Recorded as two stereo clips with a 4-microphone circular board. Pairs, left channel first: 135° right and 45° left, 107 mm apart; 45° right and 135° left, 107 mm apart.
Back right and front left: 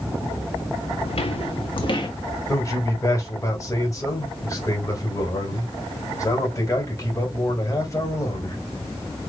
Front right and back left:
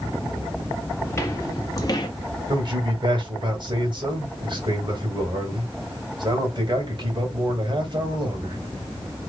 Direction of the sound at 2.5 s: 170° left.